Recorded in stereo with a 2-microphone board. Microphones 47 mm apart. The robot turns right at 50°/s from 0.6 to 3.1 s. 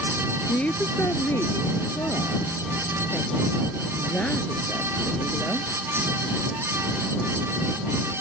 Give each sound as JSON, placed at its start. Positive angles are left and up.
{"t": 0.5, "sound": "a woman speaking", "azimuth_deg": 30}